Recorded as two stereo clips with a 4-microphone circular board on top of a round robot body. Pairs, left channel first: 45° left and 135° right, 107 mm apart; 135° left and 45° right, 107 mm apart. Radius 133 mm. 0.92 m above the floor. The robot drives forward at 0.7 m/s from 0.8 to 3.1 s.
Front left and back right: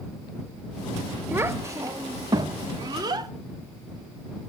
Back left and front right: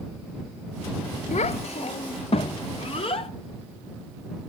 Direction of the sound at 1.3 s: 155° left.